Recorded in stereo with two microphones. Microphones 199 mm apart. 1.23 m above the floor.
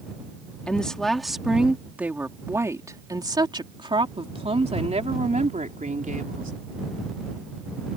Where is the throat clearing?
No throat clearing in this recording.